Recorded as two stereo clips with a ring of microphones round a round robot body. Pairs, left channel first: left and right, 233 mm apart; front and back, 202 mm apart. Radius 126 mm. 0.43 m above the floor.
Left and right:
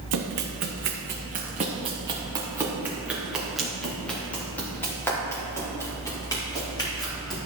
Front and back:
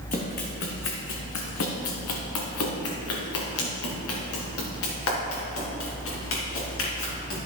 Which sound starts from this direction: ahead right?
Running footsteps, at 0.1 s.